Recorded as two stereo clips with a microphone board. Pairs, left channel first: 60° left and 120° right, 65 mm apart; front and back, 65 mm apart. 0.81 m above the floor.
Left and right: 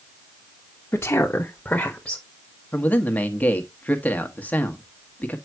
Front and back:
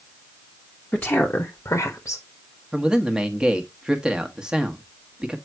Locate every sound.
0.9 s a woman speaking: 70° left, 1.1 m; by 2.2 s 20° right, 1.7 m
2.7 s a man speaking: 110° left, 1.1 m